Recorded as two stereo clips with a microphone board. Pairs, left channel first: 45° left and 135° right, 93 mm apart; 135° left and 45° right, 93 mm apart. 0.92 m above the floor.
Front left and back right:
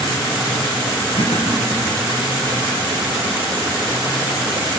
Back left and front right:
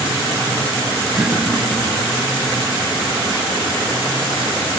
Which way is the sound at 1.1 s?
40° left.